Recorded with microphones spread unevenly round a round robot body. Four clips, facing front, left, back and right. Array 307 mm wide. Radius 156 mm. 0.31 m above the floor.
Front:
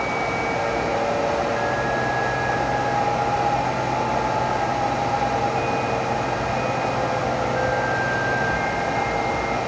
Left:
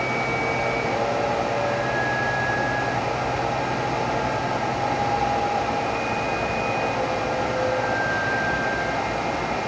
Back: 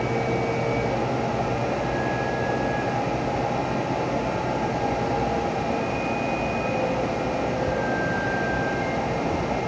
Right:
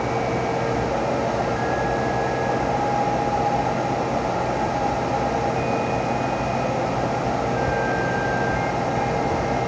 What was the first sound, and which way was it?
Only background noise.